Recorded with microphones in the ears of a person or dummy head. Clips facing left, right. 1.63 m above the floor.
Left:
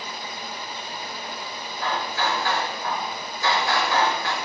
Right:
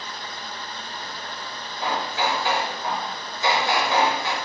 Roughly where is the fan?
Centre.